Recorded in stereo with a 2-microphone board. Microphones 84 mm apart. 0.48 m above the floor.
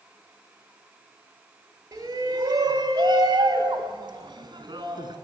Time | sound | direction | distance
1.9 | a shout | 40° right (ahead or behind) | 3 m